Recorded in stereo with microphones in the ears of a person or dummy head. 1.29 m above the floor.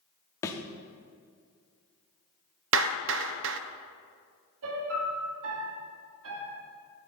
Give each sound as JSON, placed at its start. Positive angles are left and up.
{"t": 0.4, "sound": "a thud", "side_deg": 15, "distance_m": 0.8}
{"t": 2.7, "sound": "a clap", "side_deg": -65, "distance_m": 0.5}
{"t": 4.6, "sound": "a piano", "side_deg": -75, "distance_m": 1.8}